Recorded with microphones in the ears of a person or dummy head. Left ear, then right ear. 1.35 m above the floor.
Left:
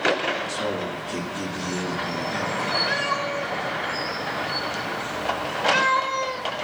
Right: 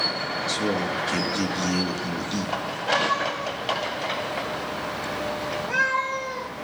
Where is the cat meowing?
25° left (ahead or behind), 2.5 m.